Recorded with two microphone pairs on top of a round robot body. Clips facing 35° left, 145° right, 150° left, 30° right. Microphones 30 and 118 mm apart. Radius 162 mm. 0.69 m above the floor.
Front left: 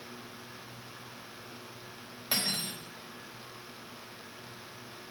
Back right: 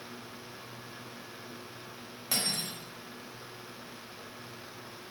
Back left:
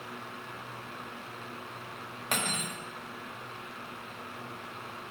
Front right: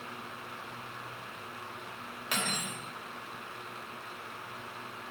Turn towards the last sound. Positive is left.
turn(degrees=110)